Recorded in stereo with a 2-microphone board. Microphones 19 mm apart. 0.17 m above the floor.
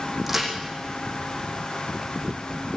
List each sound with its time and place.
0.3 s a crack: 10° right (ahead or behind), 8 m